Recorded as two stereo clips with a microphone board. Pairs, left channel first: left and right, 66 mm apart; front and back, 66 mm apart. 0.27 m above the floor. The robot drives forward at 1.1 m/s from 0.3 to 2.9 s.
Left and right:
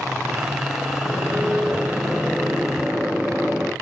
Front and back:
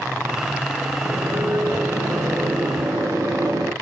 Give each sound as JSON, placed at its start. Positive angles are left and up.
{"t": 1.0, "sound": "a microwave", "azimuth_deg": -160, "distance_m": 2.5}